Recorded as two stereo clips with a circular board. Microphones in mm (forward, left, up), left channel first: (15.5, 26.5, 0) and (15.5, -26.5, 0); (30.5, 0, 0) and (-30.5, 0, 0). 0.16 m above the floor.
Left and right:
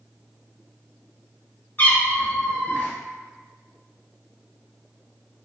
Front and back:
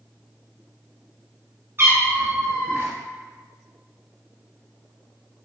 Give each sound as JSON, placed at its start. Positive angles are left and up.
{"t": 1.8, "sound": "a cat meowing", "azimuth_deg": 140, "distance_m": 0.9}